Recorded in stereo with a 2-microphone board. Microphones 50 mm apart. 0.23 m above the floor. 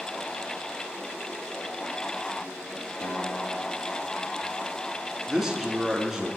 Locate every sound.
3.0 s a guitar: 45° left (ahead or behind), 4 m
5.3 s a man speaking: 10° right (ahead or behind), 2.5 m